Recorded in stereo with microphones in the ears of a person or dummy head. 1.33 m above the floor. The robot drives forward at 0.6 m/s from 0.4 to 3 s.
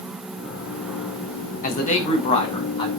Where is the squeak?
I don't hear a squeak.